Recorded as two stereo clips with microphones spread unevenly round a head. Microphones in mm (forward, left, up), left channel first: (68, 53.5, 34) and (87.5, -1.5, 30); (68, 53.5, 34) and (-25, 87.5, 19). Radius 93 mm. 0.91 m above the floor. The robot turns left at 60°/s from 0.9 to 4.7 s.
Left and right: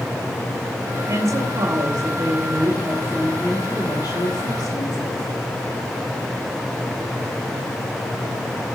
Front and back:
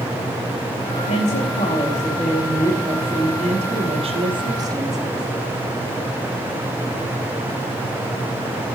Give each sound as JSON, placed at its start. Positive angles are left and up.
{"t": 1.1, "sound": "a woman speaking", "azimuth_deg": -30, "distance_m": 2.0}